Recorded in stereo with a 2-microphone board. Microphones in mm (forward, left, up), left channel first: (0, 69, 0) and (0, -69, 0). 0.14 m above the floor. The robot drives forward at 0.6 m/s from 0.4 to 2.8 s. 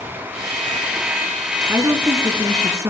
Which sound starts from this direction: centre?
A woman speaking, at 1.7 s.